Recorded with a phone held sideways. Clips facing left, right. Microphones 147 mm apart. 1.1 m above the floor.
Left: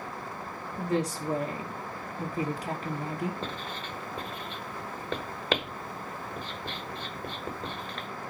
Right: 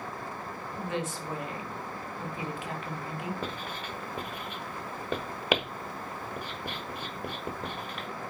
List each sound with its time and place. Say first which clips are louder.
0.8 s a woman speaking: left 5 dB; 35° left (ahead or behind), 1.6 m
3.4 s writing: even; 10° right (ahead or behind), 1.1 m